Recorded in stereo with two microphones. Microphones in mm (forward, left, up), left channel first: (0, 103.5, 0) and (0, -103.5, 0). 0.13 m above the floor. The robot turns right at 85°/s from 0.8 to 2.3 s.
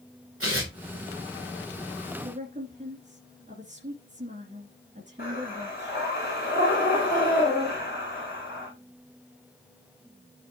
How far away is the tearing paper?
About 5 m.